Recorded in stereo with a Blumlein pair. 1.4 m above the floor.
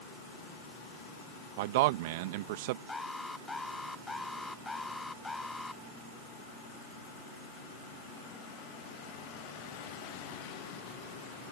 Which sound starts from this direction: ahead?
An alarm, at 2.9 s.